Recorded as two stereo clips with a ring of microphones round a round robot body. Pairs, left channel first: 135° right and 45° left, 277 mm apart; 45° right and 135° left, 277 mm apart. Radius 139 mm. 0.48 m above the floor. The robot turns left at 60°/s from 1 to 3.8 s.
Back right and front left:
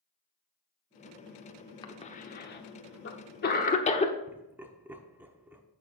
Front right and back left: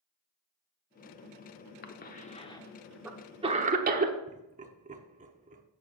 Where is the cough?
70° right, 1.0 m; by 4.1 s 175° left, 1.0 m.